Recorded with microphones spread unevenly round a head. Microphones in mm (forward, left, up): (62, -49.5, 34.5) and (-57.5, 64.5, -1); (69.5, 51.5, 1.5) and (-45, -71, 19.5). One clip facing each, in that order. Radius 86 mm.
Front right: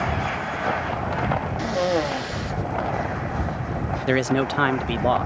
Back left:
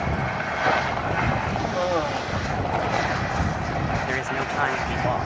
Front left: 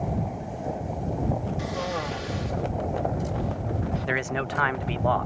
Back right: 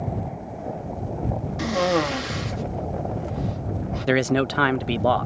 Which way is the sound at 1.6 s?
115° right.